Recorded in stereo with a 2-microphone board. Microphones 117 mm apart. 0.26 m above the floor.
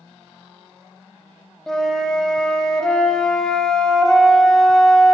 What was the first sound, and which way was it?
A flute, 5° left (ahead or behind).